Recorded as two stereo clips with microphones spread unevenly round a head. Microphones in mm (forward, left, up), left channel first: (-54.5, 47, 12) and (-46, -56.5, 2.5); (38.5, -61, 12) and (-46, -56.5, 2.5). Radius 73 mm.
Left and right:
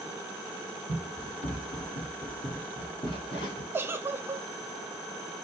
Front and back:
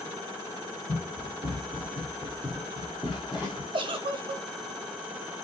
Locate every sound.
0.9 s running footsteps: 65° left, 2.5 m; by 3.6 s 105° left, 2 m
3.7 s a giggle: 155° right, 0.7 m